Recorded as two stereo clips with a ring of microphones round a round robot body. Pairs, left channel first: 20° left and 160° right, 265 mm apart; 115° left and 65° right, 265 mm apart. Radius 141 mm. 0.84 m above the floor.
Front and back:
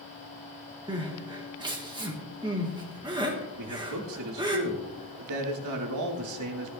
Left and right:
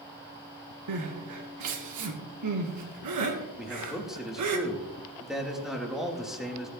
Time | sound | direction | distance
0.9 | crying | 85° right | 1.9 m
3.6 | a man speaking | 155° right | 2.5 m